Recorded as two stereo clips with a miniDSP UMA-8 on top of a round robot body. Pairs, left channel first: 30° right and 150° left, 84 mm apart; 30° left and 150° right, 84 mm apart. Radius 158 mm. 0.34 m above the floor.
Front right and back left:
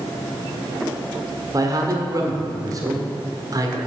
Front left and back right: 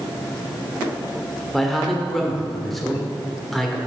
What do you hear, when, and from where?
1.5 s a man speaking: 120° left, 1.6 m